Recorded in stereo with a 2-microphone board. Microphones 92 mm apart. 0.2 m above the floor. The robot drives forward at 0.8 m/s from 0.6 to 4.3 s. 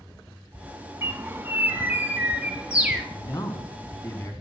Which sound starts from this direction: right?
A bird, at 1.0 s.